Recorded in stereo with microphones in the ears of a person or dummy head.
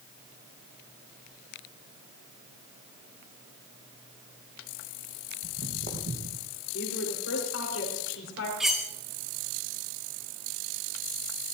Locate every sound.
5.4 s footsteps: 40° right (ahead or behind), 4 m; by 6.5 s 50° right (ahead or behind), 4 m
6.7 s a woman speaking: 85° left, 4.5 m
8.6 s cutlery clinking: centre (ahead or behind), 0.6 m